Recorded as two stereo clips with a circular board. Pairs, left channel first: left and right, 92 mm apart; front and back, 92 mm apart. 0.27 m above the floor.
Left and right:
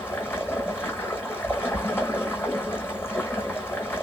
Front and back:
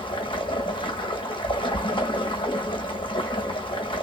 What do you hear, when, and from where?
0.0 s running water: 25° left, 1.1 m